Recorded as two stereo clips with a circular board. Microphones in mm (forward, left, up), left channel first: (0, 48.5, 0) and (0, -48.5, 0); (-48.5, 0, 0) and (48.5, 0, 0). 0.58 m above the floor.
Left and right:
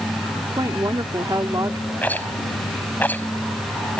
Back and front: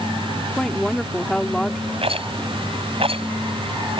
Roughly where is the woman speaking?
Right.